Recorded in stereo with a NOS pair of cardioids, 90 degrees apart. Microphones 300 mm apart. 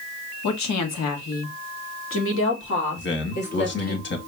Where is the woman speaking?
70° left, 1.5 m; by 4.0 s 30° left, 3 m.